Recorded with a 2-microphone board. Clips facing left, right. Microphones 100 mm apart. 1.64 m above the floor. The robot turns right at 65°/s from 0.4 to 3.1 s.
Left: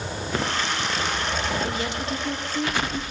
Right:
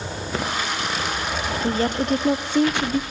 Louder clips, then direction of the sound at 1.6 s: Right 6 dB; 150° right.